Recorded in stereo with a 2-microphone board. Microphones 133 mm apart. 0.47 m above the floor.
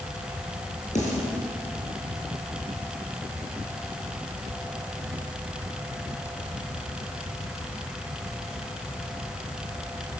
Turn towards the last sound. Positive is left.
turn(degrees=60)  # may be behind; listen again after turning